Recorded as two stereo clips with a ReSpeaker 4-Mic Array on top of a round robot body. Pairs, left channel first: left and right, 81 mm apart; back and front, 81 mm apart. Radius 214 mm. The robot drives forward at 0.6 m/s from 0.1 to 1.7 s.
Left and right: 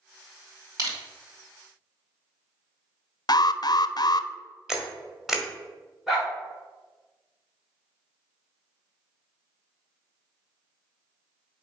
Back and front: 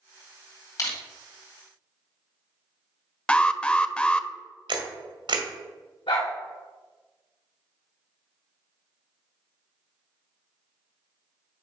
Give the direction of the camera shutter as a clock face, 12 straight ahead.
12 o'clock.